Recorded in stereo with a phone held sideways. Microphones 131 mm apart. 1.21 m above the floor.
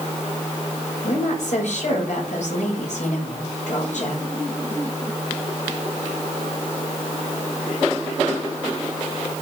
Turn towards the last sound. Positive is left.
turn(degrees=65)  # may be behind; listen again after turning